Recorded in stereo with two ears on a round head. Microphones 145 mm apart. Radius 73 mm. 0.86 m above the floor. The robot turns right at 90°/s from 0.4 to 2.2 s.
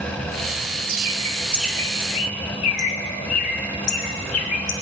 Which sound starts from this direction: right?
A bird, at 0.9 s.